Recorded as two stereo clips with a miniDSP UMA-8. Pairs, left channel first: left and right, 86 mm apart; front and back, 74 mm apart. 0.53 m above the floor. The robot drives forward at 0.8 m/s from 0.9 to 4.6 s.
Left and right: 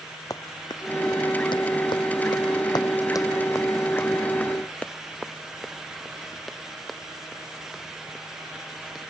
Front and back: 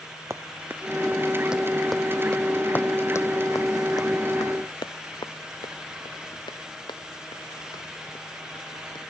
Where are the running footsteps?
130° left; by 9.0 s 5° right.